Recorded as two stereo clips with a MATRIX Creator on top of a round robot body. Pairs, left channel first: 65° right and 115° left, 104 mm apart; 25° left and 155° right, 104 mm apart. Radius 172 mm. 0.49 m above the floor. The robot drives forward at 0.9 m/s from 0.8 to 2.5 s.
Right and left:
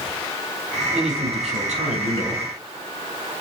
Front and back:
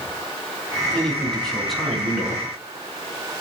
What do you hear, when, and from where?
0.9 s a man speaking: 105° left, 5 m; by 2.5 s 120° left, 5.5 m